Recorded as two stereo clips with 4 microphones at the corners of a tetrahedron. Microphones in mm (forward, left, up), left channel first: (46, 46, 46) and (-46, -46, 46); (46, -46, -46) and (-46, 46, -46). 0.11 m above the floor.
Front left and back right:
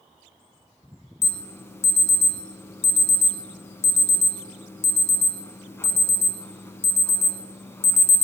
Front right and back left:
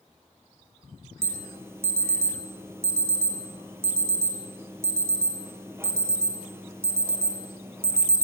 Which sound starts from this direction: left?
An alarm, at 1.2 s.